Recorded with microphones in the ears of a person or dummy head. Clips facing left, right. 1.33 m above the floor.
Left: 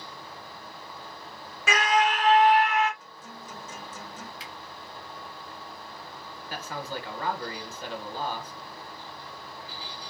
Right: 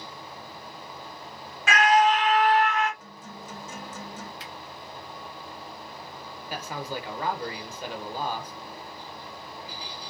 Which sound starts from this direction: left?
A scream, at 1.7 s.